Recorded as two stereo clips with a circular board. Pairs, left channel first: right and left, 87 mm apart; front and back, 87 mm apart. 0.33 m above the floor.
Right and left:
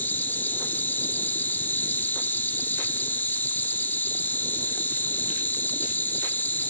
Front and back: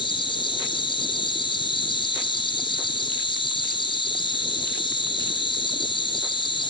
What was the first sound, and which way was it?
An insect, 20° right.